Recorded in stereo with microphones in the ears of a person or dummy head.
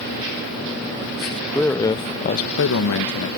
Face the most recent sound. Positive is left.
turn(degrees=70)  # may be behind; listen again after turning